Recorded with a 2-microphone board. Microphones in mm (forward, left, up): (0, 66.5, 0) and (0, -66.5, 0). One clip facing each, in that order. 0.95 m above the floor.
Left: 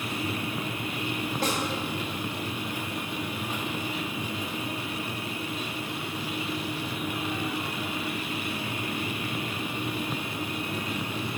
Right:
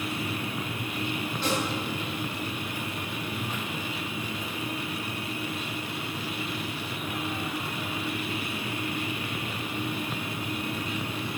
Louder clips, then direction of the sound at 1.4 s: Right 1 dB; 45° left (ahead or behind).